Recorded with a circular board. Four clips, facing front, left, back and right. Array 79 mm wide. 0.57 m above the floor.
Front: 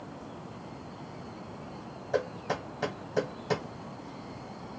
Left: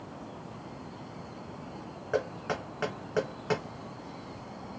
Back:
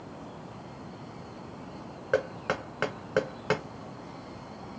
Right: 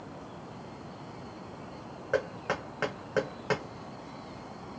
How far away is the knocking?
About 1.5 m.